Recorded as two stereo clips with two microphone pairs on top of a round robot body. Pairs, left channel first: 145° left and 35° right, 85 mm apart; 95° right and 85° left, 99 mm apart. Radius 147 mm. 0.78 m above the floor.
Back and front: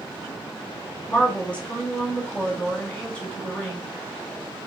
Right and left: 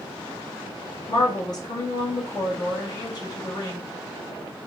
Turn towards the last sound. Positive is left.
turn(degrees=-140)